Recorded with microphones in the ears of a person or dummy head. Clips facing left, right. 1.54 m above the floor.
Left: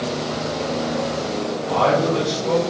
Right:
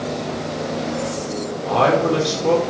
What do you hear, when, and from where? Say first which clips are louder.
1.6 s a man speaking: right 2 dB; 85° right, 5.5 m